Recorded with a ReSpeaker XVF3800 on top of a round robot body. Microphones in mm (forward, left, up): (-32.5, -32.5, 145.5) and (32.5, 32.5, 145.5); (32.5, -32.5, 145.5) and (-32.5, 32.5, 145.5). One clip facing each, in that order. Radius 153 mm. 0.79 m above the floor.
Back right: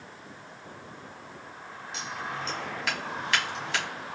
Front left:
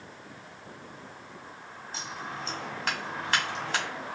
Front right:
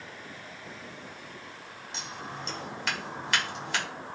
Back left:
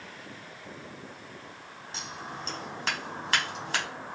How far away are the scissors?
About 1.8 m.